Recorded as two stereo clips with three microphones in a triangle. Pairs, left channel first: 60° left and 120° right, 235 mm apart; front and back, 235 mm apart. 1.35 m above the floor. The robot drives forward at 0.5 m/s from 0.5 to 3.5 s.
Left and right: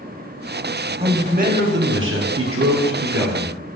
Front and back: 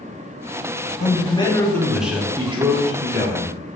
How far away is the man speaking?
About 0.9 m.